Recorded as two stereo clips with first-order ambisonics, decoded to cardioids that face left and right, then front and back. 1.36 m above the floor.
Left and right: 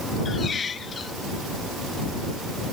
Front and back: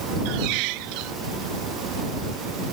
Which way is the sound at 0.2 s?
160° left.